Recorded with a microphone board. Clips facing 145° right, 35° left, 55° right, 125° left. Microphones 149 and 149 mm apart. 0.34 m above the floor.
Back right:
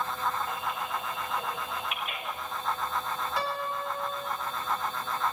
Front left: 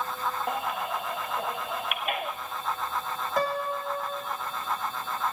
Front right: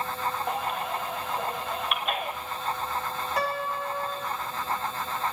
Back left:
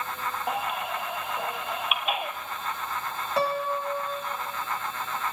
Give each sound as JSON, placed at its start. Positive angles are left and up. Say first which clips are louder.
{"t": 0.5, "sound": "a baby crying", "louder": "front left 3 dB, even", "azimuth_deg": 40, "distance_m": 1.4}
{"t": 3.4, "sound": "a piano", "louder": "front left 7 dB, back left 4 dB", "azimuth_deg": 65, "distance_m": 2.5}